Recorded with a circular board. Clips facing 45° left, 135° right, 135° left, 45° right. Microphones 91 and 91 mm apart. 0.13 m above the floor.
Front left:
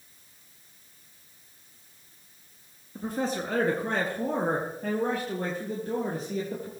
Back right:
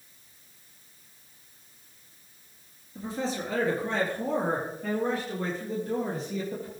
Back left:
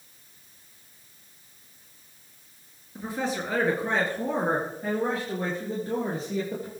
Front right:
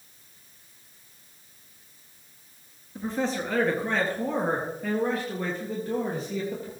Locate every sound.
3.0 s a man speaking: 55° left, 2.5 m; by 6.7 s 85° left, 4 m